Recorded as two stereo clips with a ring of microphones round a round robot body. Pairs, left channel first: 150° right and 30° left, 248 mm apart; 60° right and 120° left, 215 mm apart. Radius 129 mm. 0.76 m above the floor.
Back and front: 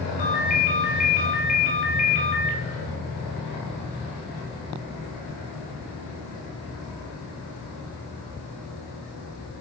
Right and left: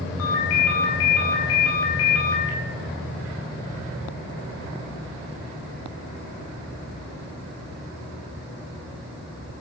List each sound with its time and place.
0.2 s a ringtone: 90° right, 4 m